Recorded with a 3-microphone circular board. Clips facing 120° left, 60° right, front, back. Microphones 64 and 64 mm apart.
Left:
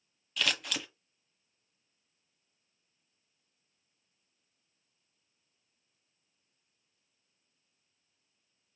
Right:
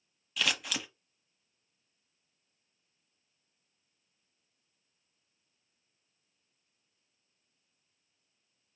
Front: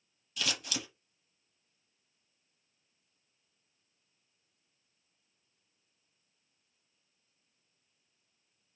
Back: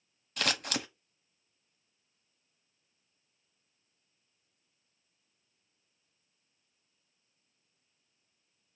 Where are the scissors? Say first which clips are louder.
Even, back 4 dB; 150° right, 0.7 m.